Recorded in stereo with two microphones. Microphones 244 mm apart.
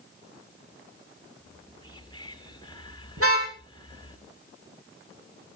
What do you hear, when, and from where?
1.4 s whispering: 15° left (ahead or behind), 3 m
3.2 s a car horn: 65° right (ahead or behind), 6 m